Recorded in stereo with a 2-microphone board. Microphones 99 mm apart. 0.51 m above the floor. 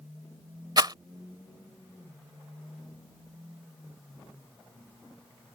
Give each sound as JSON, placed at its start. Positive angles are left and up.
{"t": 0.8, "sound": "a rattle", "side_deg": -45}